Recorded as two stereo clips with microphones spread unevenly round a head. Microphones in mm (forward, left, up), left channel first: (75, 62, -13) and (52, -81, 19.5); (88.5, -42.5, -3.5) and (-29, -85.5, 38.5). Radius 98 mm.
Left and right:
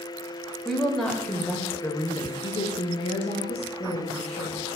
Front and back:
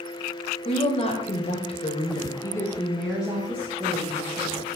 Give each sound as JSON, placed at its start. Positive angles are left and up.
{"t": 0.7, "sound": "a woman speaking", "azimuth_deg": -5, "distance_m": 1.6}